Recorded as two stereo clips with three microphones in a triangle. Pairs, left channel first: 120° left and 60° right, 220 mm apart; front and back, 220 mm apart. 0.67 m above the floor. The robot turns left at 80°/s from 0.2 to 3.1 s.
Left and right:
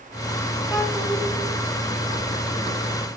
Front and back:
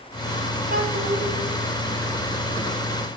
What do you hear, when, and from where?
0.7 s a child speaking: 135° right, 1.9 m; by 1.2 s straight behind, 1.9 m